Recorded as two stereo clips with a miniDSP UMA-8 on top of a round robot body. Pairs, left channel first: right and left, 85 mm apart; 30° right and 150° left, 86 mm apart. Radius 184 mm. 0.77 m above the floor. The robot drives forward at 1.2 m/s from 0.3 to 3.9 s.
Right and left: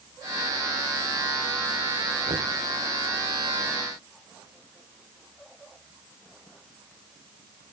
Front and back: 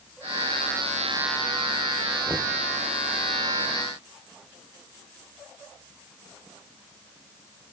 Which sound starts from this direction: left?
Knocking, at 2.3 s.